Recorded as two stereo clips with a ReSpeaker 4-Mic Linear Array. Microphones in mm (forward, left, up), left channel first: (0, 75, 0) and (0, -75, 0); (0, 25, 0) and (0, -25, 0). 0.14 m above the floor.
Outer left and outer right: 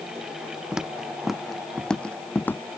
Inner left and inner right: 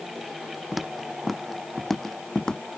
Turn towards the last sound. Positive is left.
turn(degrees=15)  # may be behind; listen again after turning